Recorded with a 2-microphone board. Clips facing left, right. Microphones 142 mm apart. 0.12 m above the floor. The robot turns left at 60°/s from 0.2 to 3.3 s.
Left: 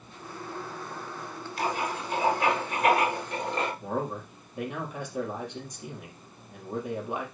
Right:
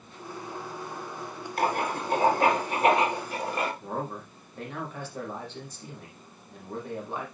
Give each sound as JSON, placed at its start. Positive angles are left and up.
{"t": 1.6, "sound": "writing", "azimuth_deg": -70, "distance_m": 2.5}
{"t": 3.8, "sound": "a man speaking", "side_deg": 15, "distance_m": 4.0}